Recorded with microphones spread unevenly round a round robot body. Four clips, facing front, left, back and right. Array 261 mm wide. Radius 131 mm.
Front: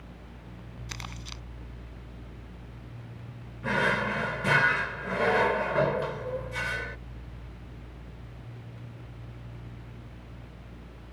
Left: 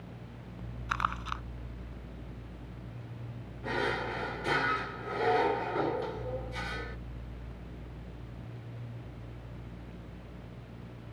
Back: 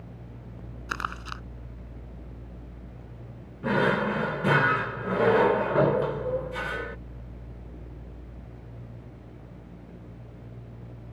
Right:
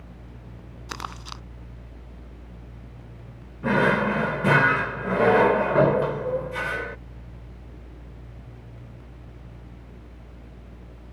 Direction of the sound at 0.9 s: 130° right.